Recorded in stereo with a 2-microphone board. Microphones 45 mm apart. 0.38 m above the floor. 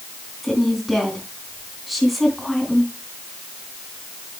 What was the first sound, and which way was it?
A woman speaking, centre (ahead or behind).